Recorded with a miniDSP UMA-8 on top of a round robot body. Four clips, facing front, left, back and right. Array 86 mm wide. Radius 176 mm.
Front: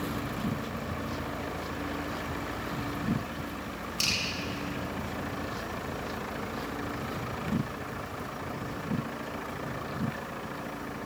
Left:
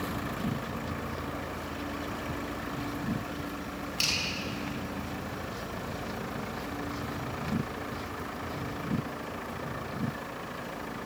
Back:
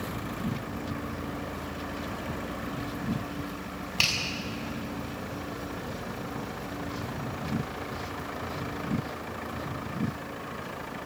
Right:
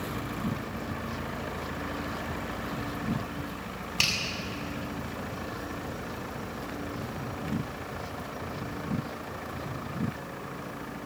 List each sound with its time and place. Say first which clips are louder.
4.0 s a finger snap: right 5 dB, back 5 dB; 145° right, 6 m